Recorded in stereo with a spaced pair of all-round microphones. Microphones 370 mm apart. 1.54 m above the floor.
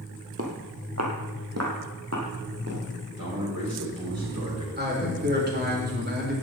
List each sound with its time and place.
0.4 s footsteps: 40° right (ahead or behind), 1.9 m; by 2.8 s 45° right (ahead or behind), 3 m
3.2 s a man speaking: 65° right (ahead or behind), 7 m
4.8 s a man speaking: 25° right (ahead or behind), 3.5 m